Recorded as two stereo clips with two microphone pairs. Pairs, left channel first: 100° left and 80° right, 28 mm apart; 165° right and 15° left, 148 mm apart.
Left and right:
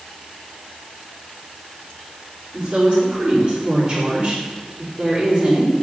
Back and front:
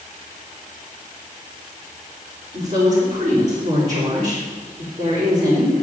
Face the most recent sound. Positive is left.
turn(degrees=-20)